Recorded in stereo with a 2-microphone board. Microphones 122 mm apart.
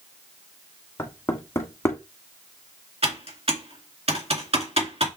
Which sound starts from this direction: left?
Knocking, at 1.0 s.